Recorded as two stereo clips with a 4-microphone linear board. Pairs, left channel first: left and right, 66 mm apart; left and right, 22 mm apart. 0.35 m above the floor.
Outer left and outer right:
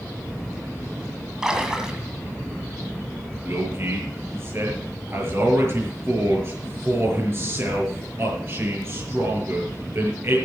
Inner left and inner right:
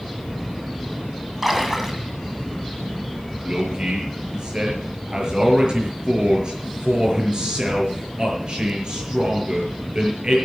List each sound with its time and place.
1.4 s a splash: 10° right (ahead or behind), 2 m
3.4 s a man speaking: 40° right (ahead or behind), 6.5 m